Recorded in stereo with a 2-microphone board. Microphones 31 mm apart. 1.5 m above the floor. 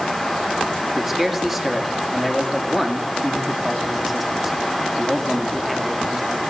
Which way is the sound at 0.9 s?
5° right (ahead or behind).